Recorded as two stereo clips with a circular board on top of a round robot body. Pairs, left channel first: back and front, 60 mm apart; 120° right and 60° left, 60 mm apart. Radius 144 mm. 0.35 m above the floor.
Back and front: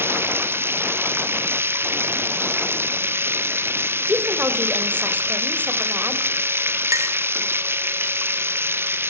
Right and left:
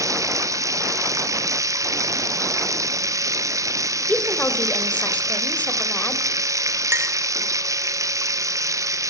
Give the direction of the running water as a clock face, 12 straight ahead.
10 o'clock.